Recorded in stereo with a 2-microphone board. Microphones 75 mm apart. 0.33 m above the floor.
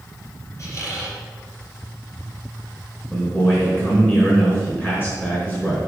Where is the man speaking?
25° left (ahead or behind), 4 m.